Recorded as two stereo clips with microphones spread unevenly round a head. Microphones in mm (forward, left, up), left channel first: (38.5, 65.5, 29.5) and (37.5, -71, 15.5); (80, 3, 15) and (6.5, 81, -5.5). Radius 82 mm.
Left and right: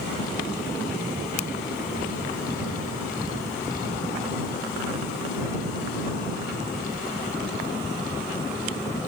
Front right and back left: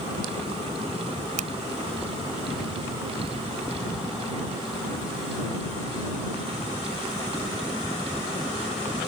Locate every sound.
1.4 s a finger snap: 140° left